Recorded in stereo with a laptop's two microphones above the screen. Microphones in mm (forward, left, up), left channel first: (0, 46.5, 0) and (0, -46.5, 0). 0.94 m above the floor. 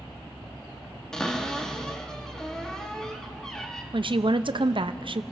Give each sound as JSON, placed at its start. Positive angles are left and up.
{"t": 1.1, "sound": "a cupboard door", "side_deg": 5, "distance_m": 1.1}
{"t": 3.9, "sound": "a woman speaking", "side_deg": -60, "distance_m": 0.5}